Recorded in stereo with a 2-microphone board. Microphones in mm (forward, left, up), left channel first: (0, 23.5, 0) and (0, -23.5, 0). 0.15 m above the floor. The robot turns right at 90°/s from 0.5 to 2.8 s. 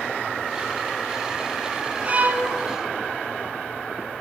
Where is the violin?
110° right, 0.5 m; by 2.5 s 75° right, 0.5 m.